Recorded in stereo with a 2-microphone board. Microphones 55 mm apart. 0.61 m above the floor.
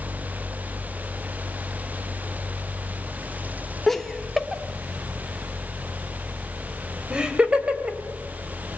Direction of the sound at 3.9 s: 5° left (ahead or behind).